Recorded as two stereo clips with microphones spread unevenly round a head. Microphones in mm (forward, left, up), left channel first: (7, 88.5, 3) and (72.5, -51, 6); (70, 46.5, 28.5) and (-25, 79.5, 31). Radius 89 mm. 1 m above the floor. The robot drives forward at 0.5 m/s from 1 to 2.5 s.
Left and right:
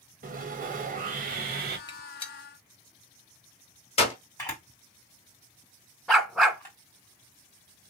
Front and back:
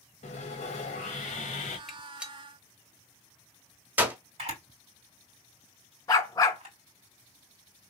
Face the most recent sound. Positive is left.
turn(degrees=25)